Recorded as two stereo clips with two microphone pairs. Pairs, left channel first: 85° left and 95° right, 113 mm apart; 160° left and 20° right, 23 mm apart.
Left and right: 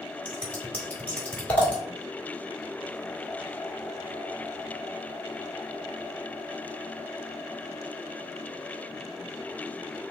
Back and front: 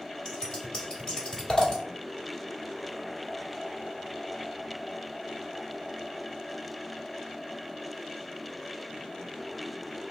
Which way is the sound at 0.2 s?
150° left.